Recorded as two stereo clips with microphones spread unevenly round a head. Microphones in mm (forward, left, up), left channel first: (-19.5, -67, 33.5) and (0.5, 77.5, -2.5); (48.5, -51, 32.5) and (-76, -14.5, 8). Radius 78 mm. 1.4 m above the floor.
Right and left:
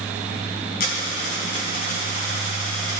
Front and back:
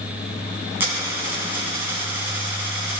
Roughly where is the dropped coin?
Behind right.